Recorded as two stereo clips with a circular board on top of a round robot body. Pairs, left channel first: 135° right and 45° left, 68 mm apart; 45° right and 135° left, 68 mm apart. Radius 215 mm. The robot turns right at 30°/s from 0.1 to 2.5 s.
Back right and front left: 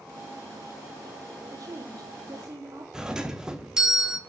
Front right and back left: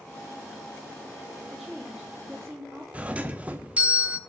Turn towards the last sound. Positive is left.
turn(degrees=110)